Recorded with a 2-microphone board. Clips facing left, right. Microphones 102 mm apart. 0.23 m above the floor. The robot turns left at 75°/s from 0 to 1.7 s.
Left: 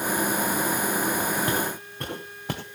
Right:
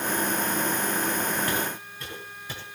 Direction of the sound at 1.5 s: 25° left (ahead or behind).